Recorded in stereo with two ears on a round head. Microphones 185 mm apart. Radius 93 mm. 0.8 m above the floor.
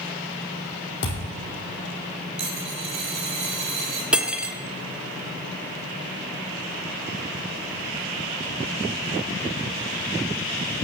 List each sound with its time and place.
1.0 s a thud: 55° left (ahead or behind), 4 m
2.4 s a dropped coin: 70° right (ahead or behind), 2.5 m
4.1 s cutlery clinking: 5° right (ahead or behind), 0.9 m